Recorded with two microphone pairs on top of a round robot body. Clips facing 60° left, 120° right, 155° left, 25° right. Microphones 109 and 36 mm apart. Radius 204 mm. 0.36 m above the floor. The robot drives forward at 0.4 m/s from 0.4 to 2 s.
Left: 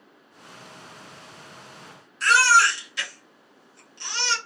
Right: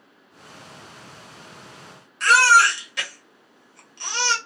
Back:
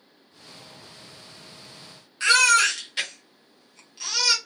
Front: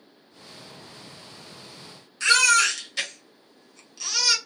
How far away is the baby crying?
About 1.5 m.